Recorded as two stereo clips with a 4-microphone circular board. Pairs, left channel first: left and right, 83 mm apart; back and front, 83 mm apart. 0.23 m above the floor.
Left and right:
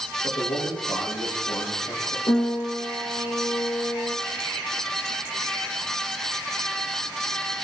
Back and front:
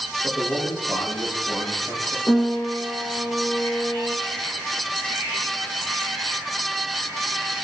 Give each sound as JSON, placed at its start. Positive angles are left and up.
{"t": 0.2, "sound": "a man speaking", "azimuth_deg": 75, "distance_m": 7.0}
{"t": 2.3, "sound": "a piano", "azimuth_deg": 115, "distance_m": 6.0}